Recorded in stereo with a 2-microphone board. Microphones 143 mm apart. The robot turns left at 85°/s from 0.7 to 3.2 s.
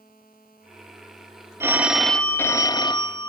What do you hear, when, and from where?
1.6 s a phone ringing: 140° right, 0.5 m; by 3.3 s 80° left, 0.5 m